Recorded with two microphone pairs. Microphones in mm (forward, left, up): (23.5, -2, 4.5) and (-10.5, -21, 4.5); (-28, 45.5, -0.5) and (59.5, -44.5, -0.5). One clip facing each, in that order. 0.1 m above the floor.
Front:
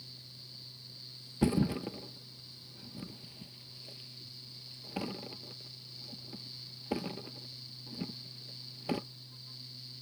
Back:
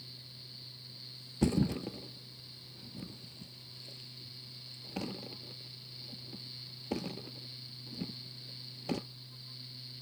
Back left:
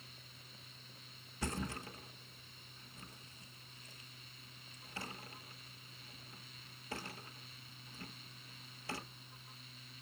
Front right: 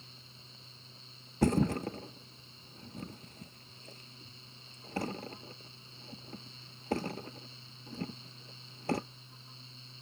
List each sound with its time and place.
1.4 s a thud: 45° right, 0.5 m